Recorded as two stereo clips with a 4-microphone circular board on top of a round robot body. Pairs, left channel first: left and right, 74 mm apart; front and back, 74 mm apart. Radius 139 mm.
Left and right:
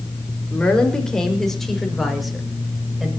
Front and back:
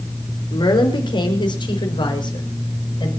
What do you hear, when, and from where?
0.5 s a woman speaking: 15° left, 4.5 m; by 3.1 s 5° right, 6.5 m